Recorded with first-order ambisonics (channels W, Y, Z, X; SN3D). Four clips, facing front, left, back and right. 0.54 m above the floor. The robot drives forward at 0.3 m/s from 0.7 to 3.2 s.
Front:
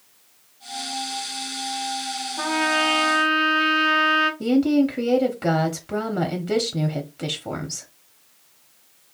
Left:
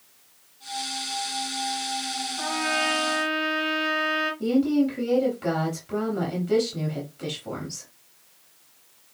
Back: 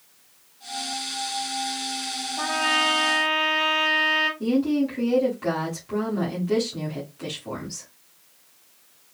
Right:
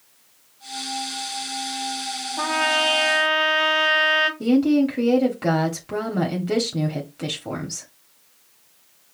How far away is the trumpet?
About 1.2 m.